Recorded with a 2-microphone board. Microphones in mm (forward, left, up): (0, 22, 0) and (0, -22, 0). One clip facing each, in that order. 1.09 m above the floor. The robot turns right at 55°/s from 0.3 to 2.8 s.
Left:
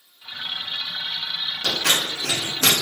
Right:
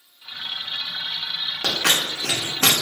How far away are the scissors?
About 0.9 m.